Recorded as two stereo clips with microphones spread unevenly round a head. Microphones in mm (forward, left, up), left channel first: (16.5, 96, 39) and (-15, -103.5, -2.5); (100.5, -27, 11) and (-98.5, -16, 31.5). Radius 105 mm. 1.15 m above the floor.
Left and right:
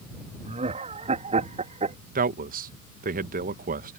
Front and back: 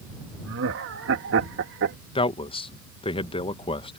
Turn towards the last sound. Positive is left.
turn(degrees=-60)